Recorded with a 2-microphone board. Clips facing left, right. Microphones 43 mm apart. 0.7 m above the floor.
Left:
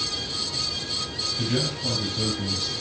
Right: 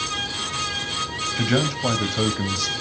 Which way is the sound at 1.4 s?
80° right.